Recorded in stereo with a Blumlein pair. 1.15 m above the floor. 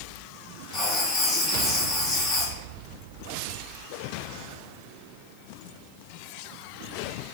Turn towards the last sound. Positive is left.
turn(degrees=15)